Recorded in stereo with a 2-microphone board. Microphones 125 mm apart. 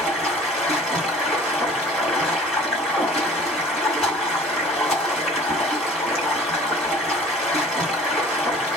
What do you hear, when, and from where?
0.0 s running water: 10° left (ahead or behind), 1.8 m